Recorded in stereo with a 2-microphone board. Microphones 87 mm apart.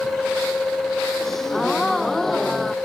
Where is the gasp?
5° left (ahead or behind).